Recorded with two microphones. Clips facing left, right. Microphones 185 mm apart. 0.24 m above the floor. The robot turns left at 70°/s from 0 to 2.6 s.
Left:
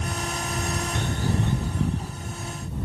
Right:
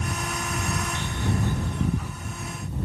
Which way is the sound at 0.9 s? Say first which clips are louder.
Left 4 dB; 55° left (ahead or behind).